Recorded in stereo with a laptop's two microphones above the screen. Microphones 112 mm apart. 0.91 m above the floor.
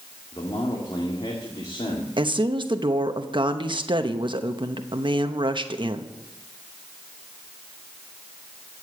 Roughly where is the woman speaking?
Right.